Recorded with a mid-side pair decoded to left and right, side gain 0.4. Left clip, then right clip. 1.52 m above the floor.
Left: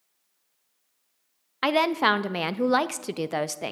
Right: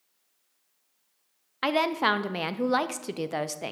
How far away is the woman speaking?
About 0.6 m.